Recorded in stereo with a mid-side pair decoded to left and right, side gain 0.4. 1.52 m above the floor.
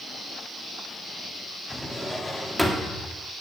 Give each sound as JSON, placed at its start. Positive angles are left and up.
{"t": 1.7, "sound": "a drawer", "azimuth_deg": 15, "distance_m": 2.0}